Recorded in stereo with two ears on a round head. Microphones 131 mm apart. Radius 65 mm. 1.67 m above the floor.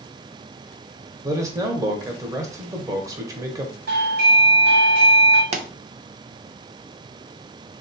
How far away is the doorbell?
About 1.5 m.